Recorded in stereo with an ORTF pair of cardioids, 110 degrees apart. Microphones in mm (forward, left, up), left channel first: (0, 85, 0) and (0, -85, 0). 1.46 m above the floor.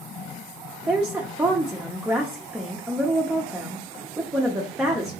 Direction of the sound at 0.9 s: 10° right.